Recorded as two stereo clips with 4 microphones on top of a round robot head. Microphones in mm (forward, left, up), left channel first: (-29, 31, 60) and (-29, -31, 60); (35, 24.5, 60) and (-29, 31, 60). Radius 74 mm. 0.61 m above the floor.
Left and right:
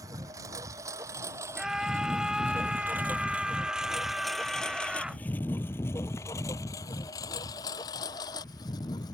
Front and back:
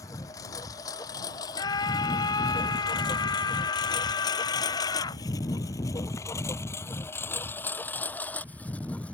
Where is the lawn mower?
50° right; by 9.2 s 65° left.